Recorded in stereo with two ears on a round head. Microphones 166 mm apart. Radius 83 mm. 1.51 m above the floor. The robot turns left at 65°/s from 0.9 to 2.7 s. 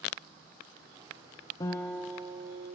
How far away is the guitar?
About 0.7 m.